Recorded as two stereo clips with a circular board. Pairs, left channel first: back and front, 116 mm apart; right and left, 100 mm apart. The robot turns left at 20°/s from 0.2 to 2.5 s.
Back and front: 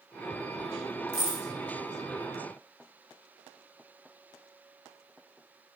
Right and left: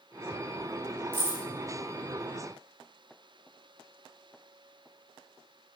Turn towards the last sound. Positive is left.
turn(degrees=120)